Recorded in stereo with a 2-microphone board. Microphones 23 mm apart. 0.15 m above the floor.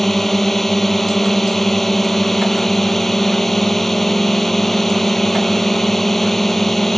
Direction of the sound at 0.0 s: 10° left (ahead or behind).